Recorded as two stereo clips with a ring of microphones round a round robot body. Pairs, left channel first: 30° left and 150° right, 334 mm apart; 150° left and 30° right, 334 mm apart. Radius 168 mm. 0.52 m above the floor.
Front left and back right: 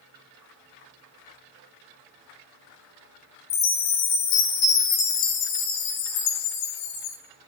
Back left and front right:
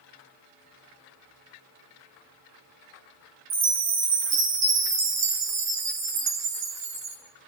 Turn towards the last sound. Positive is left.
turn(degrees=15)